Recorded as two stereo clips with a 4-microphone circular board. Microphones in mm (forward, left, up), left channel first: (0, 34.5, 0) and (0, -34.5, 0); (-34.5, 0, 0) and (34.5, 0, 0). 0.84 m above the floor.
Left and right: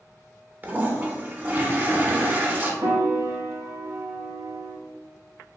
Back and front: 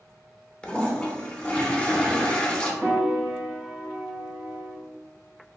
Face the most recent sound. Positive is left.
turn(degrees=-70)